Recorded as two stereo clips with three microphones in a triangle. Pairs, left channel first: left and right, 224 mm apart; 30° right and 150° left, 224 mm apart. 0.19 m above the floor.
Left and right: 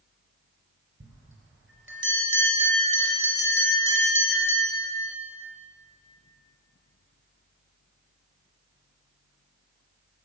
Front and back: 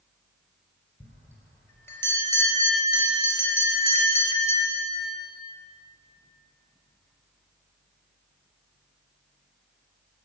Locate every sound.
1.0 s a bell: 110° right, 4 m